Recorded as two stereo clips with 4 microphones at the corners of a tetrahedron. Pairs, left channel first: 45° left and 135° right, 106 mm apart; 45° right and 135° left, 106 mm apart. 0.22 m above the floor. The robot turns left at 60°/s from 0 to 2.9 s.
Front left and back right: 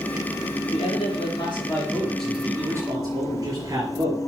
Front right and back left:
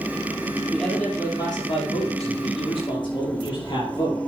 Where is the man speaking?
50° left, 4.5 m; by 4.2 s 80° right, 4.5 m.